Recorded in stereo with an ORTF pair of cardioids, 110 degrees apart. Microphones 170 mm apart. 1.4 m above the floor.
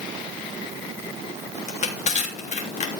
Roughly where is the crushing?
Ahead left.